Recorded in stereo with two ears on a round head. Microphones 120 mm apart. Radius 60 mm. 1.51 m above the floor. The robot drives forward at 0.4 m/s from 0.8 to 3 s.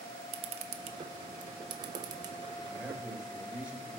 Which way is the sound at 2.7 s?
10° right (ahead or behind).